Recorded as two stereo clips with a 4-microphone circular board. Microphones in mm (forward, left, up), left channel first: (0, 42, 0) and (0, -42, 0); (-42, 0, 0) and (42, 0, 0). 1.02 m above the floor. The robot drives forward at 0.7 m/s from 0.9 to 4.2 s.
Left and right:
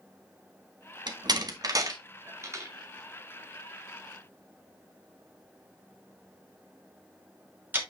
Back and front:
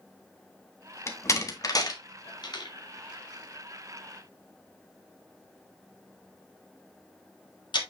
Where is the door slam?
120° right, 1.4 m; by 7.8 s 160° right, 3 m.